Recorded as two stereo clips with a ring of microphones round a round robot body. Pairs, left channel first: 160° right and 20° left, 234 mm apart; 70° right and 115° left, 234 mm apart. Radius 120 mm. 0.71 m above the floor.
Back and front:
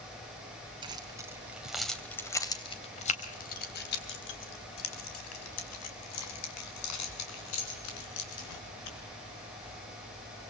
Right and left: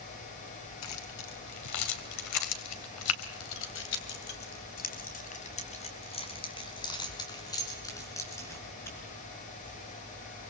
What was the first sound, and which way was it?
Keys jangling, 50° right.